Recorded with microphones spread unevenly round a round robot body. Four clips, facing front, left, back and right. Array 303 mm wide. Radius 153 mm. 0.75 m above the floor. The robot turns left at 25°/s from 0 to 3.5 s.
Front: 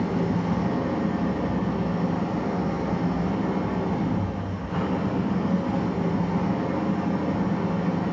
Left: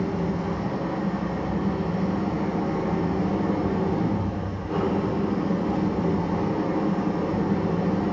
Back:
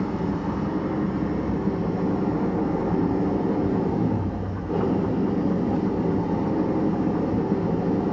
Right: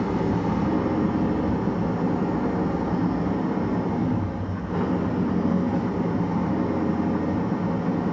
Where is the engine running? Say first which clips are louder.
Right 3 dB, front 1 dB; 105° right, 2 m; by 8.1 s 170° left, 2 m.